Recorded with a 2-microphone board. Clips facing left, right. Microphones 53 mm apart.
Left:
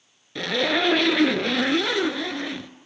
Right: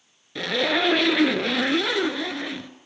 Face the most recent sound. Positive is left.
turn(degrees=0)  # may be behind; listen again after turning